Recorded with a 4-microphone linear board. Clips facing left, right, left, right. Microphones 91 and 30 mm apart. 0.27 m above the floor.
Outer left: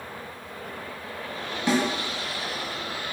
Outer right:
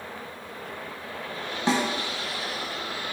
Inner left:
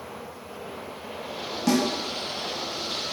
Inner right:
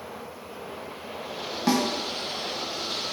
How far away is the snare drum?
About 0.5 m.